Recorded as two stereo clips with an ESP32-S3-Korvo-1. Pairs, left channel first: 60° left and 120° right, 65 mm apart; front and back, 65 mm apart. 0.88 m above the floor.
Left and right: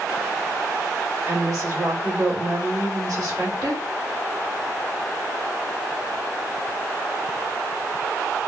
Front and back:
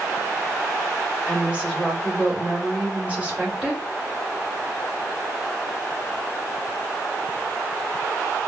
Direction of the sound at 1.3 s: 110° right.